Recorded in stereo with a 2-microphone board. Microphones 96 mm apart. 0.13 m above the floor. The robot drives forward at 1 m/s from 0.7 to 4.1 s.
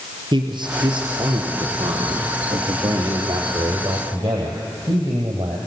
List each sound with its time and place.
0.3 s a man speaking: 55° right (ahead or behind), 2.5 m; by 5.6 s 35° right (ahead or behind), 3.5 m